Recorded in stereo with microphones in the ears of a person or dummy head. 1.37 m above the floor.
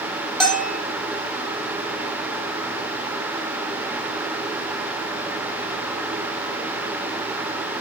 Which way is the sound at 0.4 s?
Centre (ahead or behind).